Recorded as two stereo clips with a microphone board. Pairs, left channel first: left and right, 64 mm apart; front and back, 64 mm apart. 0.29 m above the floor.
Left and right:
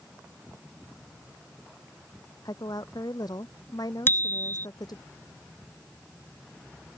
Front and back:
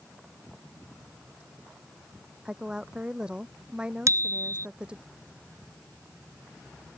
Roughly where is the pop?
No pop in this recording.